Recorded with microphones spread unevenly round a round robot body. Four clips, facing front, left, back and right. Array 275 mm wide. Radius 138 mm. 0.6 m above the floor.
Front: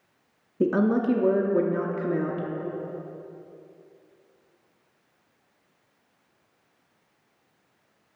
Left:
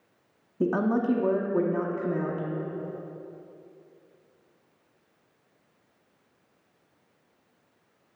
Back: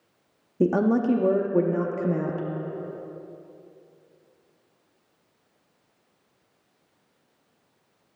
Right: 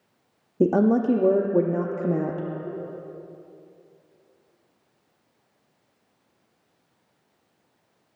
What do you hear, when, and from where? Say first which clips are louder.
0.6 s a woman speaking: right 6 dB, back 1 dB; 90° right, 0.6 m